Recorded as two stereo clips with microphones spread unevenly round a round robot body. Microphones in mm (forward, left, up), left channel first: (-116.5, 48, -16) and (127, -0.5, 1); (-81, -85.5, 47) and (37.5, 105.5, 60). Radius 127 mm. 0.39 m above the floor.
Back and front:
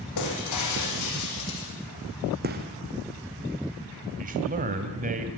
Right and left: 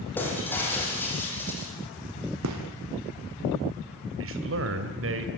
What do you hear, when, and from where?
0.2 s breaking glass: 155° left, 9 m
2.4 s a gunshot: 40° left, 3 m
4.2 s a man speaking: 45° left, 3 m